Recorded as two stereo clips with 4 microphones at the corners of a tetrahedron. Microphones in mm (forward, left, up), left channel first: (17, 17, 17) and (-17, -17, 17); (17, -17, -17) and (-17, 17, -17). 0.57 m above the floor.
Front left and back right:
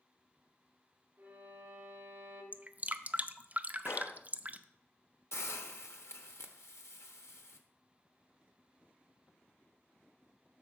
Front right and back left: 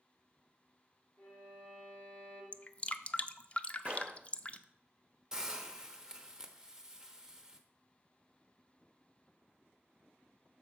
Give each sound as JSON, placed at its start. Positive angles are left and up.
{"t": 1.2, "sound": "a violin", "azimuth_deg": -85, "distance_m": 4.5}
{"t": 2.5, "sound": "dripping", "azimuth_deg": -95, "distance_m": 0.5}
{"t": 3.9, "sound": "a gunshot", "azimuth_deg": 70, "distance_m": 0.7}
{"t": 5.3, "sound": "a hiss", "azimuth_deg": 55, "distance_m": 1.1}